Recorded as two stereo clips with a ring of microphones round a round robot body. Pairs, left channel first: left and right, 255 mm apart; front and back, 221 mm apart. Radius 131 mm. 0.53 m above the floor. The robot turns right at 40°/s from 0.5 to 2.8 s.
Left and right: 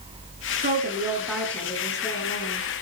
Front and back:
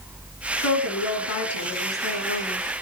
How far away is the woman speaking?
About 6.5 m.